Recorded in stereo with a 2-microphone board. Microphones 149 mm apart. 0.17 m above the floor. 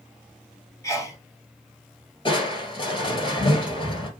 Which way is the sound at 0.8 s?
20° left (ahead or behind).